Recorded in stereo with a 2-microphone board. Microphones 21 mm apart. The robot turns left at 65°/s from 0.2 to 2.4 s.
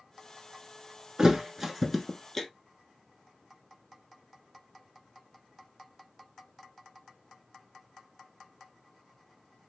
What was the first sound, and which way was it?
A thud, 30° right (ahead or behind).